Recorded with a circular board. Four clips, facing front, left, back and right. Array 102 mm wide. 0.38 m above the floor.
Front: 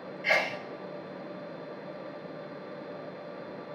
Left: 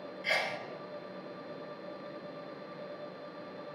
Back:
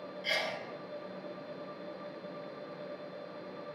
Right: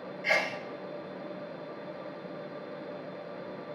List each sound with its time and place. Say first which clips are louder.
0.2 s a sneeze: right 4 dB, front 7 dB; 20° right, 1.0 m